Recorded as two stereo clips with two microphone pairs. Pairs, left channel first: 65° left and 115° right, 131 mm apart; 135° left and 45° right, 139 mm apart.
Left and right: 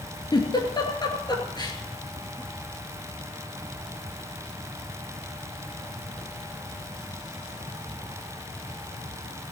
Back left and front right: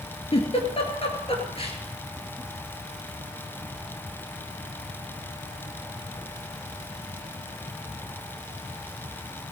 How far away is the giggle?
About 2.5 m.